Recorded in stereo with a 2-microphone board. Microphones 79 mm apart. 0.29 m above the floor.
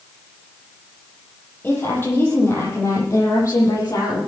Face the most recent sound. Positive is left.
turn(degrees=45)  # may be behind; listen again after turning